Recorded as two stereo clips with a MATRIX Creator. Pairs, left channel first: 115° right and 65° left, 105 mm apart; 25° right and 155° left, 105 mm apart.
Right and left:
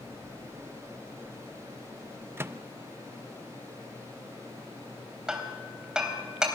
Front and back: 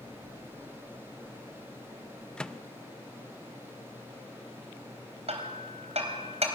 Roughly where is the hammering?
Behind left.